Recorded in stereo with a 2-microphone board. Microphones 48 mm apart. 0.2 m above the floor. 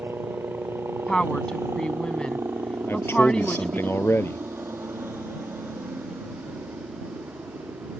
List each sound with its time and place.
0.0 s a helicopter: 70° right (ahead or behind)
1.1 s a woman speaking: 20° left (ahead or behind)
2.9 s a man speaking: 60° left (ahead or behind)